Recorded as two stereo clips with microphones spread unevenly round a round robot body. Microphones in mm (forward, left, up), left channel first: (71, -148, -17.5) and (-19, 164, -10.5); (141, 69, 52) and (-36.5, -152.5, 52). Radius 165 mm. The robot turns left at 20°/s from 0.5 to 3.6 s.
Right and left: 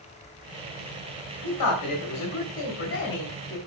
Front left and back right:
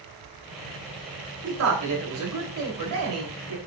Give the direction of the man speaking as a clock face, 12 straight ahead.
3 o'clock.